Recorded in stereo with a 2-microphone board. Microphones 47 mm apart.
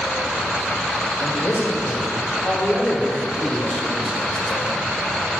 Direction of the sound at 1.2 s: 45° left (ahead or behind).